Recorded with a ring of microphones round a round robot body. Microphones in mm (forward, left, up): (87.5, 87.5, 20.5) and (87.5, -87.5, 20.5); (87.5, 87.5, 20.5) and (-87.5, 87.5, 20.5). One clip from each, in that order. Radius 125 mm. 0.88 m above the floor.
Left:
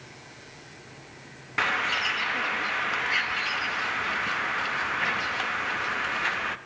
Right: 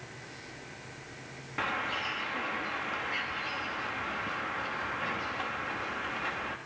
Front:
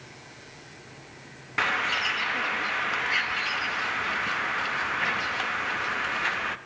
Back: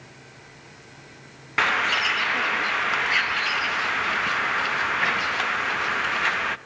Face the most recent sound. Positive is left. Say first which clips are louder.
# left 7 dB, back 4 dB
turn(degrees=125)